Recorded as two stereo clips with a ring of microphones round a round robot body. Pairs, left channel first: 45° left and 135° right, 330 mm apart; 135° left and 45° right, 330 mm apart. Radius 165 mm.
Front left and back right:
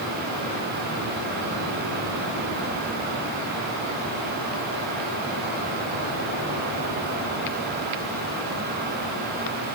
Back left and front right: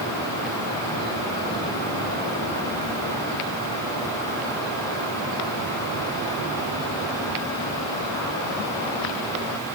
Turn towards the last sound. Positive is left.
No sound to turn to.